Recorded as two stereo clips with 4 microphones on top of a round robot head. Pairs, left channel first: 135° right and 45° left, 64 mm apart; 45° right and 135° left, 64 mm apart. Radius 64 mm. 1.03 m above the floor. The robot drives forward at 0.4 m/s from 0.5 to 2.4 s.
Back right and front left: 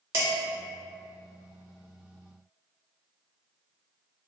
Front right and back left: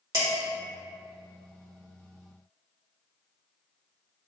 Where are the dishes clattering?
95° left, 1.1 m.